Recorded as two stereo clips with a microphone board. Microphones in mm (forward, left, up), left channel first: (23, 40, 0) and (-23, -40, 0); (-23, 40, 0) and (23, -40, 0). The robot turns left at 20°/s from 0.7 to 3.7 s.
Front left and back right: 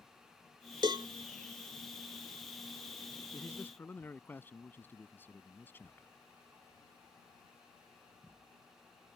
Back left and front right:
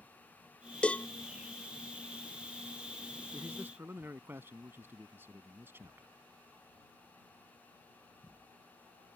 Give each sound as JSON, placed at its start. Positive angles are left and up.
{"t": 0.8, "sound": "a cowbell", "azimuth_deg": -160}
{"t": 3.3, "sound": "a man speaking", "azimuth_deg": 5}